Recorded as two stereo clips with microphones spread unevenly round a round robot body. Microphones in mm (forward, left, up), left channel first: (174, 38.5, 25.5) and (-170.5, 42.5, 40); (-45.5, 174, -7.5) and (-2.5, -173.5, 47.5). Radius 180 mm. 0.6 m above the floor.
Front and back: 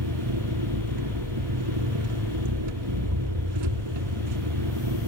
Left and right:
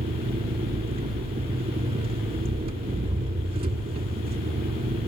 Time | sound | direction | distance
0.0 | an engine running | 155° right | 1.6 m